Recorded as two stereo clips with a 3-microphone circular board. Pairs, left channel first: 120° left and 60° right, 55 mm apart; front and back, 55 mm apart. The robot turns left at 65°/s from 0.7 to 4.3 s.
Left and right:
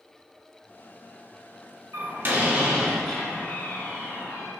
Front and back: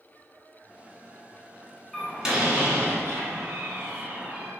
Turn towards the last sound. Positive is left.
turn(degrees=125)